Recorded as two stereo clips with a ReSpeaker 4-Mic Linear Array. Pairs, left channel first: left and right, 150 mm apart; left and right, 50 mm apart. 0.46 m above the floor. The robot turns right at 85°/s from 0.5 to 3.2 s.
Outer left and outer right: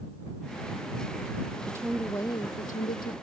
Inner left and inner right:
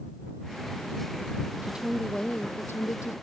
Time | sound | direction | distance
1.6 | a woman speaking | 30° right | ?